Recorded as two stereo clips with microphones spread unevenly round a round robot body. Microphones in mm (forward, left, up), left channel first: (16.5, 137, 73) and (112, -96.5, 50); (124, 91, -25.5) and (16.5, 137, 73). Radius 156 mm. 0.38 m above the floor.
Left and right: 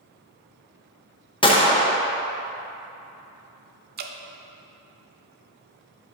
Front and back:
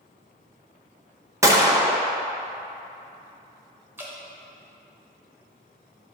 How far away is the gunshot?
About 1.0 m.